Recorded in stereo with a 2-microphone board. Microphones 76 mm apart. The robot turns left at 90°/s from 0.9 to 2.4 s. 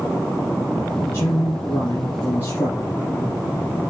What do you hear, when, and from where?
1.0 s a man speaking: 155° left, 5 m; by 2.9 s 35° left, 5 m